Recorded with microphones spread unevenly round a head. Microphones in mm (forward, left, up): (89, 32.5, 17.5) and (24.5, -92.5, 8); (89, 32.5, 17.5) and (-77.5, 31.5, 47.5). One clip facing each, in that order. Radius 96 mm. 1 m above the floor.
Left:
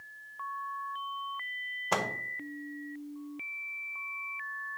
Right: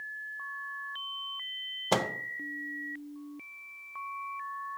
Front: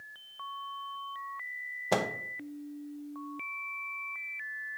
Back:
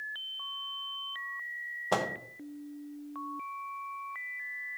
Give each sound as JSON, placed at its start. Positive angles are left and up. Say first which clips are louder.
{"t": 1.9, "sound": "a microwave", "louder": "right 3 dB, front 1 dB", "azimuth_deg": -70, "distance_m": 0.7}